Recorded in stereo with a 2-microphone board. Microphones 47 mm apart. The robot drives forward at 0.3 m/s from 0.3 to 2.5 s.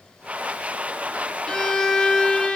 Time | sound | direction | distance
1.5 | a violin | 20° left (ahead or behind) | 0.7 m